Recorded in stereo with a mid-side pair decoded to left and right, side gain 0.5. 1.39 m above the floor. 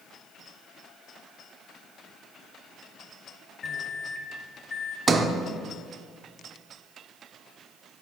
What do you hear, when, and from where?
3.6 s a microwave: 40° left, 1.0 m
5.1 s a sliding door: 35° right, 0.7 m